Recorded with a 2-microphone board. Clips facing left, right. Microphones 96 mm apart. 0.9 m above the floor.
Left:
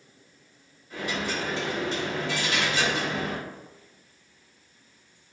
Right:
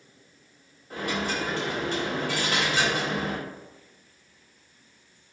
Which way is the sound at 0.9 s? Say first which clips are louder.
Right 1 dB; 50° right (ahead or behind).